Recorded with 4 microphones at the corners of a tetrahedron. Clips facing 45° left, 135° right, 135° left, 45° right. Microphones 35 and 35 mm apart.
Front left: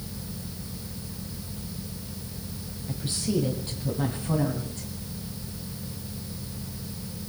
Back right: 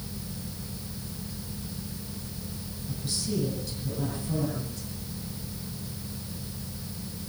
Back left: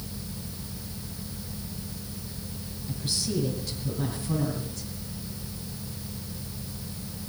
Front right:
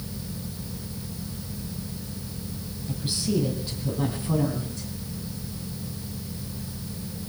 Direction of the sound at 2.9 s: 15° left.